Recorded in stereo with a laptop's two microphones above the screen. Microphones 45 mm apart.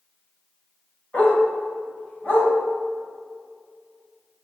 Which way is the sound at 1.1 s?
30° left (ahead or behind).